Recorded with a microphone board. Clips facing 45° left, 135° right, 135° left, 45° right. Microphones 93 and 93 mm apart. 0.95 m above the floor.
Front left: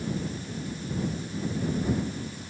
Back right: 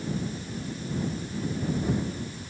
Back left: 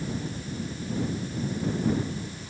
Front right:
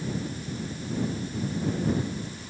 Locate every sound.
Only background noise.